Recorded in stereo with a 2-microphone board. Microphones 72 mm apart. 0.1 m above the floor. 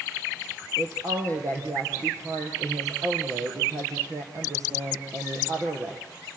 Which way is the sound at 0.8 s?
45° right (ahead or behind).